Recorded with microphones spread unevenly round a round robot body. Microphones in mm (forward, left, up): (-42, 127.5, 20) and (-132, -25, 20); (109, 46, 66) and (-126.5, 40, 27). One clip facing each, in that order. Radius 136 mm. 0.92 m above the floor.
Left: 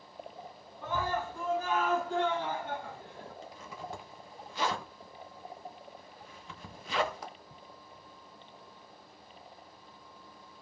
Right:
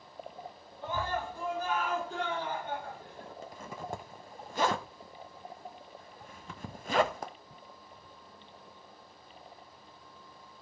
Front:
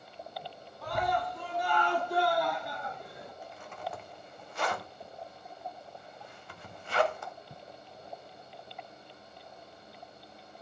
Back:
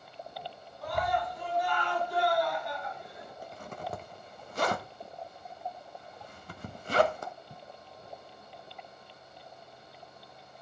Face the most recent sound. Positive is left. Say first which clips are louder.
# right 4 dB, back 2 dB
turn(degrees=-150)